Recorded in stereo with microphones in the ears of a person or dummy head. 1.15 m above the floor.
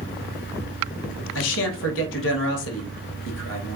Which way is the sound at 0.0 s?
60° left (ahead or behind).